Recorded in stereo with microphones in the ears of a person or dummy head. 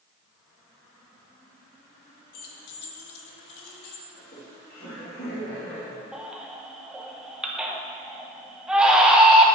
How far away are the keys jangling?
About 1.1 m.